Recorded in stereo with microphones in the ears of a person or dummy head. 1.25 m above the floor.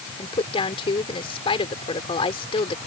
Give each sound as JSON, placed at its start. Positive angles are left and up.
{"t": 0.2, "sound": "a woman speaking", "side_deg": 35}